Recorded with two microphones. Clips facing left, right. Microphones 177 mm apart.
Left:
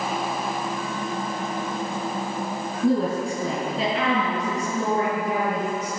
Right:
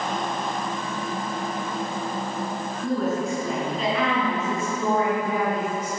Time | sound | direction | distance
2.8 | a woman speaking | 30° left (ahead or behind) | 3.5 m